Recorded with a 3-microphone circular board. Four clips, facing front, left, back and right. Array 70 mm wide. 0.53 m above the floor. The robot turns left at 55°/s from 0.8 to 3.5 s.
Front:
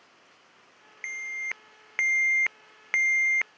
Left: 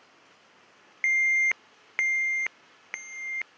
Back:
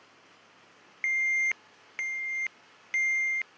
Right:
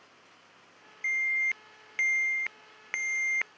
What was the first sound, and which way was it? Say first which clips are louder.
An alarm: left 5 dB, back 7 dB; 100° left.